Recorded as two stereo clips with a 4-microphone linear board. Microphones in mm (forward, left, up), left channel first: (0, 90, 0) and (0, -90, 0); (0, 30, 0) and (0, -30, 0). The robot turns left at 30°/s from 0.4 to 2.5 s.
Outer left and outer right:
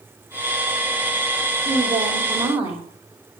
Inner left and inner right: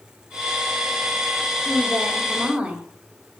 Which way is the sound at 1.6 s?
40° right (ahead or behind).